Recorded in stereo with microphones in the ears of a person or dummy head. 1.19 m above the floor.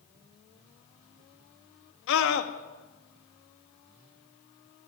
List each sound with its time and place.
2.1 s a scream: 70° left (ahead or behind), 1.9 m